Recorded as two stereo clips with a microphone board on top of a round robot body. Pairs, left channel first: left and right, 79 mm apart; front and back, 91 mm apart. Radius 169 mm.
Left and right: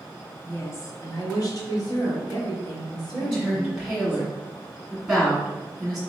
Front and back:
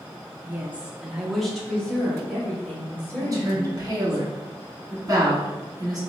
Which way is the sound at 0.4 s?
125° left.